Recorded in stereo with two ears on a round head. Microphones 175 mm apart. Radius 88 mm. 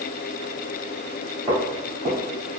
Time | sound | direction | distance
1.5 | footsteps | 25° right (ahead or behind) | 1.4 m